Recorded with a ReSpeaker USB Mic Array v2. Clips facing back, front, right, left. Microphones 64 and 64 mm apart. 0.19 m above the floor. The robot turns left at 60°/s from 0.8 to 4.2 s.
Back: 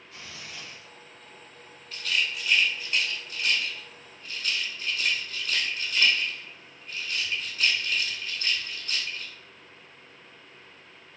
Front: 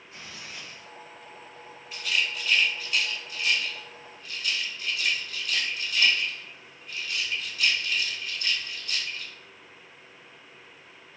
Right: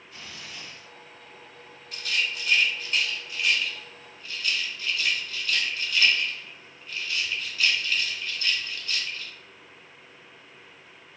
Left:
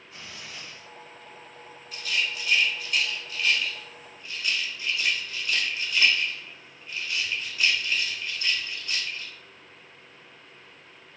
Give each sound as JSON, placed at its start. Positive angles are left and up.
{"t": 0.1, "sound": "tearing paper", "azimuth_deg": 50, "distance_m": 1.6}
{"t": 1.9, "sound": "a rattle", "azimuth_deg": -70, "distance_m": 0.9}